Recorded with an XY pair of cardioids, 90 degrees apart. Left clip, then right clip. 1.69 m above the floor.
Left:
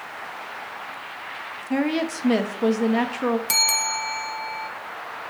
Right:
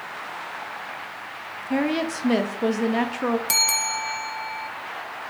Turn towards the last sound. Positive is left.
turn(degrees=0)